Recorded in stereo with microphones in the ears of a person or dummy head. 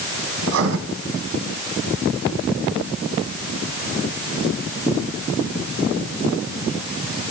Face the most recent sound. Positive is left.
turn(degrees=-65)  # may be behind; listen again after turning